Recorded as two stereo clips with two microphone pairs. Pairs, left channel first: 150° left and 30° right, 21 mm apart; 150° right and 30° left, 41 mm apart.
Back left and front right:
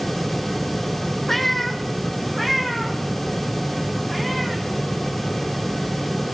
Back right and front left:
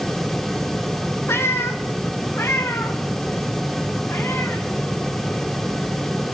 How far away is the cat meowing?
About 0.9 m.